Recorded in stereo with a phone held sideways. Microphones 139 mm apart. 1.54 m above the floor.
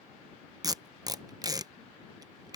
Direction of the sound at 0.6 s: 25° right (ahead or behind).